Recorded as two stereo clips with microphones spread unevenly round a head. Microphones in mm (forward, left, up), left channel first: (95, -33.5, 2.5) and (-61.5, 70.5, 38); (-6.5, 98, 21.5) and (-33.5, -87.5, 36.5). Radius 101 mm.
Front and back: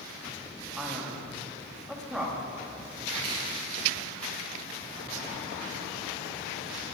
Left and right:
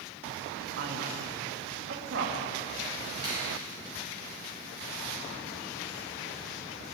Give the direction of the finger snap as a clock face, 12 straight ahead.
6 o'clock.